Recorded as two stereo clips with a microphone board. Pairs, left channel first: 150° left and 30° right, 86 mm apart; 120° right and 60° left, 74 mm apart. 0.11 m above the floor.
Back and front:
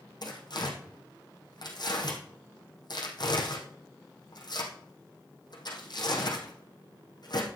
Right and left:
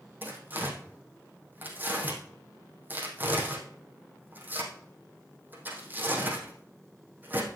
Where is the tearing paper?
125° left, 3 m.